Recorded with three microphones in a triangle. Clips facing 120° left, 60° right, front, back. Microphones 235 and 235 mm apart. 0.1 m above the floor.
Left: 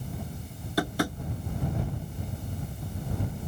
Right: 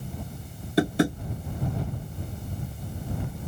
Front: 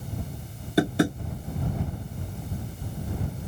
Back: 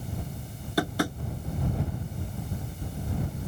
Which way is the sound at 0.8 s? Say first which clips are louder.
Right 6 dB, front 6 dB; 30° right.